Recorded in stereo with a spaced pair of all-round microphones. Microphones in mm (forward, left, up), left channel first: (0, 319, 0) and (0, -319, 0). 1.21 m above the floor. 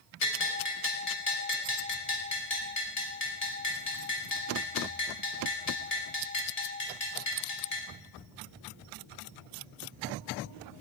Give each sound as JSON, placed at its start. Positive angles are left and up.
{"t": 0.2, "sound": "a bell", "side_deg": 70, "distance_m": 4.0}